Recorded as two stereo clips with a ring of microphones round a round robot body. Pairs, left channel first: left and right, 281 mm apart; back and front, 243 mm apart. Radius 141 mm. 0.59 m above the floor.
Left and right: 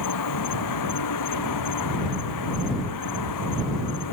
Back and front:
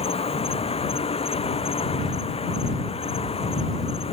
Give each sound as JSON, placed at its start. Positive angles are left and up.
{"t": 0.0, "sound": "an insect", "azimuth_deg": 115}